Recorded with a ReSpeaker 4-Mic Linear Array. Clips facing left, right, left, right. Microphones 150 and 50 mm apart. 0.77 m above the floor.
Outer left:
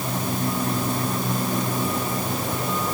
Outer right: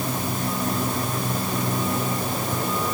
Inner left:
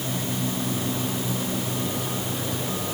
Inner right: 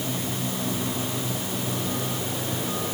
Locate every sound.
Only background noise.